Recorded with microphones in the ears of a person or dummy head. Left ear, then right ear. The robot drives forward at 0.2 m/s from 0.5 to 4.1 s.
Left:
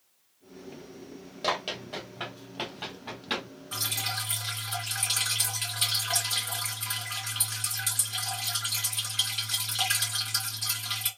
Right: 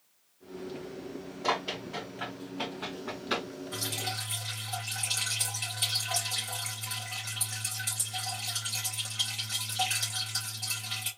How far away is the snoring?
I don't hear snoring.